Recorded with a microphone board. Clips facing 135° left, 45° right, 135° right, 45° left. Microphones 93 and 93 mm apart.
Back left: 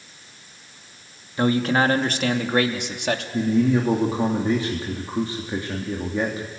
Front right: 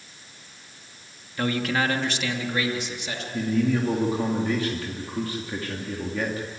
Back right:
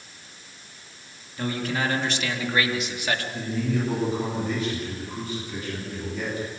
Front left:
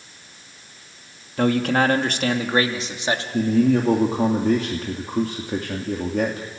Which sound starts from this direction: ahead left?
A man speaking, at 3.3 s.